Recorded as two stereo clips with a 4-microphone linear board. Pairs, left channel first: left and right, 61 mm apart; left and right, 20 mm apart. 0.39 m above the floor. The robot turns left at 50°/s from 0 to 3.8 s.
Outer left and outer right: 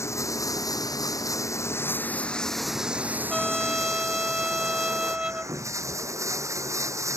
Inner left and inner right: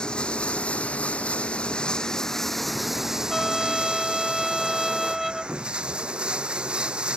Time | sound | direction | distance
0.0 | running water | 135° left | ?
3.3 | a trumpet | 10° left (ahead or behind) | ?